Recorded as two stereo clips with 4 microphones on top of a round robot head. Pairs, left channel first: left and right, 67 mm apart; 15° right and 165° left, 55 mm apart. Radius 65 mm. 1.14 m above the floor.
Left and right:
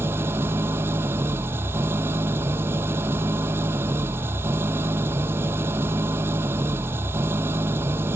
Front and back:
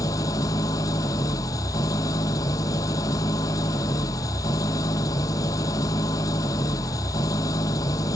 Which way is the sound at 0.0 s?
30° right.